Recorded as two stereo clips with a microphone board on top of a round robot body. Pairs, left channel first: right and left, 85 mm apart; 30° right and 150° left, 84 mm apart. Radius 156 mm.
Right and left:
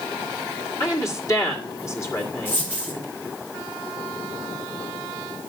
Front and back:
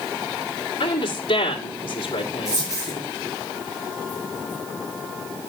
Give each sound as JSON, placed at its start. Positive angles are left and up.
{"t": 0.8, "sound": "a woman speaking", "azimuth_deg": -30, "distance_m": 2.0}
{"t": 2.5, "sound": "a dropped coin", "azimuth_deg": -160, "distance_m": 5.5}